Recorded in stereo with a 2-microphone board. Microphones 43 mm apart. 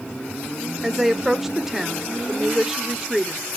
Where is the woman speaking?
10° right (ahead or behind), 0.8 m.